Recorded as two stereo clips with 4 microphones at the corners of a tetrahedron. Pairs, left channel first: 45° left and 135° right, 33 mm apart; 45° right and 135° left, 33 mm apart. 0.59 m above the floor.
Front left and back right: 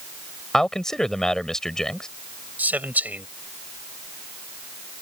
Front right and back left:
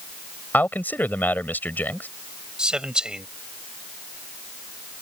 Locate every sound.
0.5 s a man speaking: 30° right
2.6 s a man speaking: 165° right